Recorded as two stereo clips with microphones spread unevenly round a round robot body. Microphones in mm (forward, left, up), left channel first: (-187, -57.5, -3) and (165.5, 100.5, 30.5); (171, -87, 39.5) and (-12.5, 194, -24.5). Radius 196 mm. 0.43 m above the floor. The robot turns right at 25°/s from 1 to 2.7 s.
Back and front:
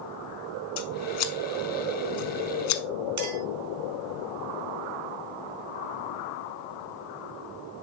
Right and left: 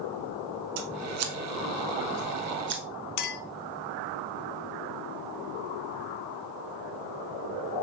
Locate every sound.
0.8 s scissors: 145° left, 0.9 m; by 2.8 s 170° right, 0.9 m
3.2 s a clink: 20° right, 1.2 m